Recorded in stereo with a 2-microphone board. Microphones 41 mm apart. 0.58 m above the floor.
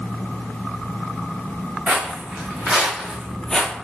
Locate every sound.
1.9 s footsteps: 25° right (ahead or behind), 2 m; by 3.7 s 30° left (ahead or behind), 0.6 m